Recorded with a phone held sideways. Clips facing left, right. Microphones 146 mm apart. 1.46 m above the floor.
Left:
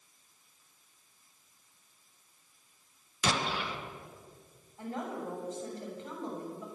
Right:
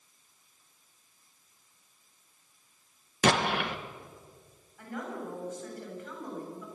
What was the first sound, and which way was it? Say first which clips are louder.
An explosion: right 6 dB; 60° right (ahead or behind).